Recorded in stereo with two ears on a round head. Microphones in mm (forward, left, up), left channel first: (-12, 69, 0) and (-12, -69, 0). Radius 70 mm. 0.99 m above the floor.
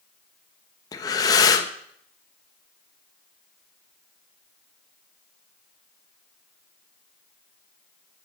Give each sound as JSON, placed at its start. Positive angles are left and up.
{"t": 0.9, "sound": "breathing", "side_deg": 25, "distance_m": 0.7}